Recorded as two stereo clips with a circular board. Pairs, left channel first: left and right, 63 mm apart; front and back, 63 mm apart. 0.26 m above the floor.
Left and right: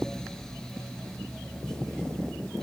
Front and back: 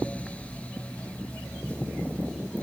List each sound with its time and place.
Only background noise.